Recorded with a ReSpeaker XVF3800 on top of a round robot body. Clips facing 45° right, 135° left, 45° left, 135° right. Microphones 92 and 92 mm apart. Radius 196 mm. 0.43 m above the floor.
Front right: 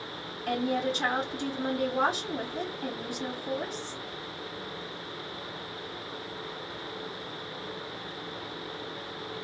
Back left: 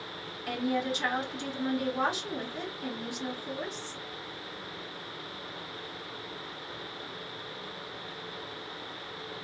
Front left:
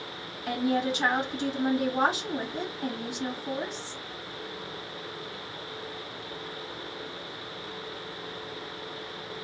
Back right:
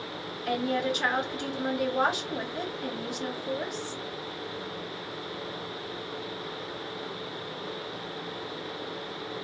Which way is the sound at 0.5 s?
5° right.